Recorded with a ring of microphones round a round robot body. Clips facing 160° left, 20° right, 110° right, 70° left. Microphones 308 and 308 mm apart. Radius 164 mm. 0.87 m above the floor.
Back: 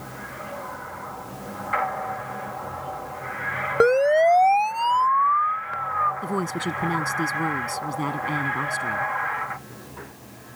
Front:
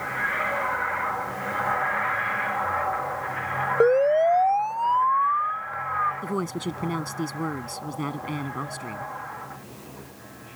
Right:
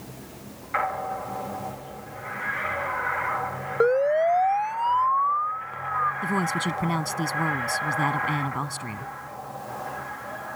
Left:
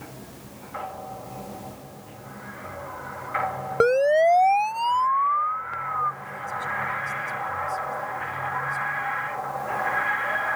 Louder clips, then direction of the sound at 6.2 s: Back 1 dB, right 11 dB; 120° right.